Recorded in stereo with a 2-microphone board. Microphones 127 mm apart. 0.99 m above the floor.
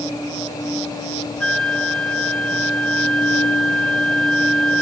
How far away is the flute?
About 1.8 m.